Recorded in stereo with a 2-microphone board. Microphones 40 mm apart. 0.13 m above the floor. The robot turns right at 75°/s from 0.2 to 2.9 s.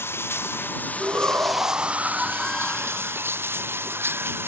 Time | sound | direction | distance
0.0 | running water | 85° left | ?
1.0 | a shout | 110° right | ?